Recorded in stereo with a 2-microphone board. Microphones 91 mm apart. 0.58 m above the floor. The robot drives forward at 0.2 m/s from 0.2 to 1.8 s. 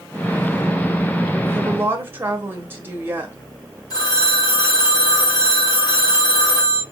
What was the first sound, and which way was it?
A woman speaking, 25° right (ahead or behind).